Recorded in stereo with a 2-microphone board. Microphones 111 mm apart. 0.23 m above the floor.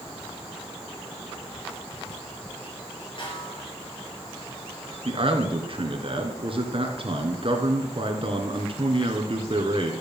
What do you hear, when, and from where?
3.2 s a snare drum: 50° left (ahead or behind), 5.5 m
5.0 s a man speaking: 55° right (ahead or behind), 3 m